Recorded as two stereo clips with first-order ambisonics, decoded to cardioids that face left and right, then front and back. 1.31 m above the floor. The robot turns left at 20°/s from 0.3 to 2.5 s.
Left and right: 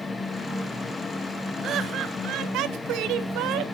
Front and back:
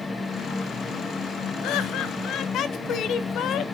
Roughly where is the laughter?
Ahead right.